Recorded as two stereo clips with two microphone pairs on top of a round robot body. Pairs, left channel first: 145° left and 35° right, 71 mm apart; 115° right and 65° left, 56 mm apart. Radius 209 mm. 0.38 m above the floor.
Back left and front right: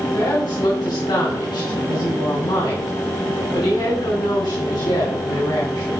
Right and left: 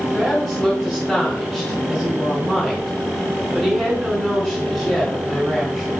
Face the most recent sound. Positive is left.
turn(degrees=150)